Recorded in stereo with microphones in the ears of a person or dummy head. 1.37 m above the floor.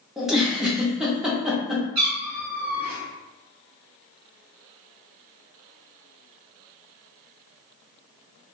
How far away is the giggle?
About 0.6 m.